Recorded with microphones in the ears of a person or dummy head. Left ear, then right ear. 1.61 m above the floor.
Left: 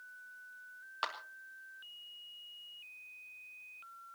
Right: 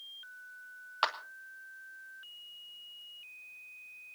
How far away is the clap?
About 1.5 m.